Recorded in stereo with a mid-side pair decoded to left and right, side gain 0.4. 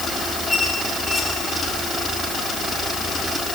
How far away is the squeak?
About 6.5 m.